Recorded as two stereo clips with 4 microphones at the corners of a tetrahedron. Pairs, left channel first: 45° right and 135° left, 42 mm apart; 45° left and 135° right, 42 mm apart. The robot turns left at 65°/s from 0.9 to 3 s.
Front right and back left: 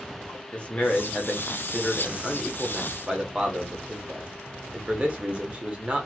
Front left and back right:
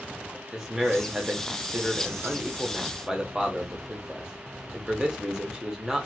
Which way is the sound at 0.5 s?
65° right.